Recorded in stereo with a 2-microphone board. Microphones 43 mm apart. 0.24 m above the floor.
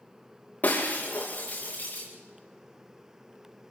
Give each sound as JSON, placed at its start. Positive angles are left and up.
{"t": 0.6, "sound": "breaking glass", "side_deg": 40, "distance_m": 4.5}